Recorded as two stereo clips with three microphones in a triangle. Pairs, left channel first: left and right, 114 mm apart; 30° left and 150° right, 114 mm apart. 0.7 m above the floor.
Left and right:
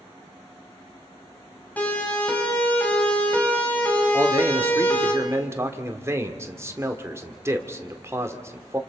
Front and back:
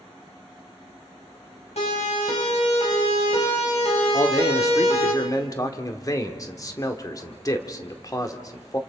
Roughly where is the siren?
Ahead.